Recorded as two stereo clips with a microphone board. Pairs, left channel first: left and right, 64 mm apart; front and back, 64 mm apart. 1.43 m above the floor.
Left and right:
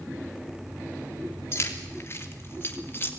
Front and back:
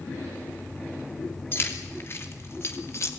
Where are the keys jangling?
50° left, 3 m; by 3.1 s 40° left, 1.9 m.